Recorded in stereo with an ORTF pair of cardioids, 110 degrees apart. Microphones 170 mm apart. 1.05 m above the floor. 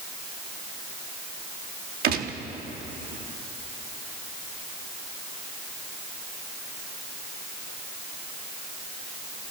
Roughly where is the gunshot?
Ahead right.